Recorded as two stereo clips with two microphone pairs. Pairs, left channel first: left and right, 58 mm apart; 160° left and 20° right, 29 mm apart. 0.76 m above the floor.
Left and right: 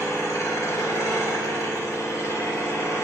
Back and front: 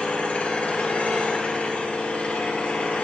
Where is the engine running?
120° left, 1.3 m.